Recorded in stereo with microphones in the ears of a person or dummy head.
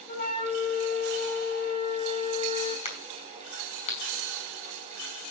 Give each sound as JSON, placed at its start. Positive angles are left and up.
{"t": 0.1, "sound": "a flute", "side_deg": 35, "distance_m": 4.0}
{"t": 2.9, "sound": "a crack", "side_deg": 30, "distance_m": 4.5}